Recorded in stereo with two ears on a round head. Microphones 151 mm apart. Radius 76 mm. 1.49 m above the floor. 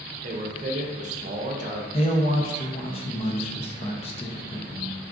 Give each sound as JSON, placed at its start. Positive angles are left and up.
{"t": 0.2, "sound": "a man speaking", "side_deg": -45, "distance_m": 0.6}
{"t": 1.9, "sound": "a man speaking", "side_deg": 35, "distance_m": 0.5}